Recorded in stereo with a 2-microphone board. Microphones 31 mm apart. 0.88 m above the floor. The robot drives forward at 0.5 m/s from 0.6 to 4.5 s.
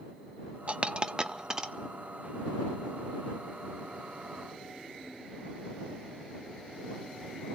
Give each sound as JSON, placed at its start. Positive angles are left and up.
{"t": 0.7, "sound": "a dropped coin", "side_deg": -40, "distance_m": 0.5}